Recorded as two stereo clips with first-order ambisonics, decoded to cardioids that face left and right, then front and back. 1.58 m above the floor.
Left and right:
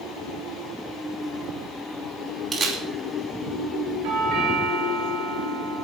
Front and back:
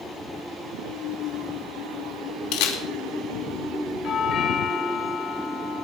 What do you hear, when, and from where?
2.5 s a camera shutter: 20° right, 2.5 m
4.0 s a doorbell: 60° right, 4.5 m